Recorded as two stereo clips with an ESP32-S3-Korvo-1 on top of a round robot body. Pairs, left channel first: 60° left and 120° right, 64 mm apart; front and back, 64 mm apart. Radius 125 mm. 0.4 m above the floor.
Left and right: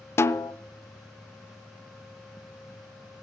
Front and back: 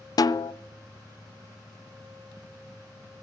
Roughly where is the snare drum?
Ahead.